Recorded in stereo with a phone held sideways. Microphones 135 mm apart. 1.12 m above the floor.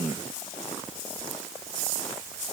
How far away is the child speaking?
No child speaking in this recording.